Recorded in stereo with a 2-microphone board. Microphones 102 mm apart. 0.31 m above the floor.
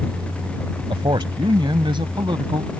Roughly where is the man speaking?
Right.